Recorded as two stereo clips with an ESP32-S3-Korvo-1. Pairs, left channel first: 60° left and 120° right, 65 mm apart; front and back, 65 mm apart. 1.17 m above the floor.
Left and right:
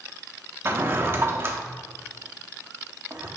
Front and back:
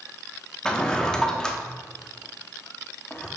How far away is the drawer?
About 0.9 m.